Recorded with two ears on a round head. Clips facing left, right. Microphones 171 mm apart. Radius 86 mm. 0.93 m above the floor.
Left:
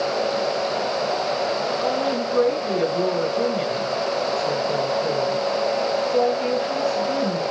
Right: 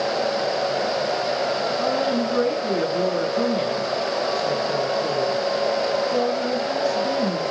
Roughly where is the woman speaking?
Right.